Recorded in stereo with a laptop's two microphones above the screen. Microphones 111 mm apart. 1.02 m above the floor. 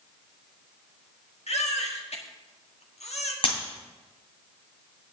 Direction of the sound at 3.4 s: 50° left (ahead or behind).